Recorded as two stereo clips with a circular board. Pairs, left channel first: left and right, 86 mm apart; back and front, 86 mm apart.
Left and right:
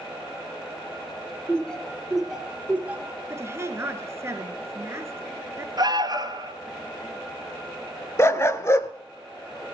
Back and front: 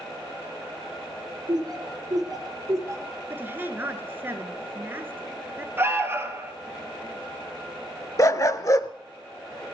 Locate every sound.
1.5 s laughter: 15° left, 2.5 m; by 3.2 s 35° right, 2 m
3.3 s a woman speaking: 50° right, 1.3 m
5.8 s an alarm: 60° right, 1.4 m
8.2 s a dog barking: 140° left, 0.6 m